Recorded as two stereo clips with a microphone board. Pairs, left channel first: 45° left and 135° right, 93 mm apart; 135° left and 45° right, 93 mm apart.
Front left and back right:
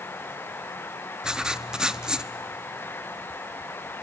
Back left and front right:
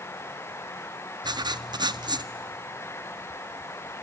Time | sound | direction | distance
1.2 | writing | 55° right | 0.6 m